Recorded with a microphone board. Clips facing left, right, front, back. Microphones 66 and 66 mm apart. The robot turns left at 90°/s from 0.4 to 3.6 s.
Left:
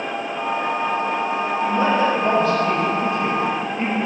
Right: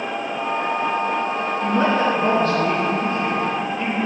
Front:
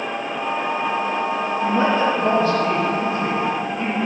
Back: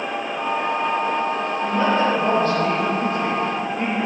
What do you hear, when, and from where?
1.6 s a woman speaking: 55° right, 4 m; by 4.1 s 125° left, 4 m